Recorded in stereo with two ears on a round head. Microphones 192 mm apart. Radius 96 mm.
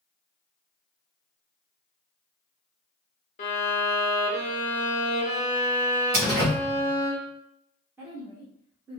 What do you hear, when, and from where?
3.4 s a violin: 35° left (ahead or behind), 0.9 m
6.1 s a door slam: 45° right (ahead or behind), 1.6 m
8.0 s a woman speaking: 10° right (ahead or behind), 1.1 m